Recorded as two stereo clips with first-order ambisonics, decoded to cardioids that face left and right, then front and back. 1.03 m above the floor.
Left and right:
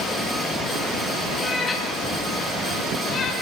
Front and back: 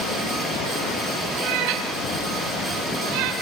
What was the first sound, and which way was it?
A cat meowing, 160° left.